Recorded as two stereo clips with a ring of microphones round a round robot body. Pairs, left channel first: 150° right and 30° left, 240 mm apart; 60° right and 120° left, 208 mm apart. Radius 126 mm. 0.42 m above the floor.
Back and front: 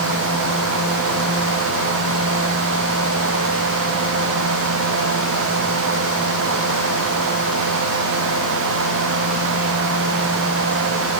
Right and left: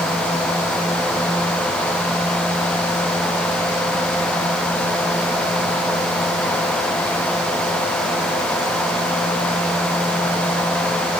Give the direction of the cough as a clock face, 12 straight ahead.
I don't hear a cough.